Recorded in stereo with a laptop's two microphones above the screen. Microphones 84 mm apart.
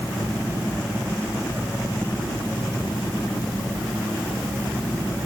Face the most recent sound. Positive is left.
No sound to turn to.